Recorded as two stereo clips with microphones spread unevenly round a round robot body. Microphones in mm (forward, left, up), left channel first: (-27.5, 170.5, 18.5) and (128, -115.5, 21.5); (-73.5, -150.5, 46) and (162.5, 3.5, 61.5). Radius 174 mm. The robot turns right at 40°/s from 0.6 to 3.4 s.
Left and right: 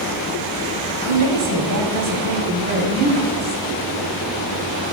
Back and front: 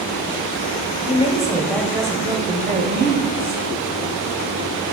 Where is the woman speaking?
85° right, 2 m; by 3.6 s 5° left, 2 m.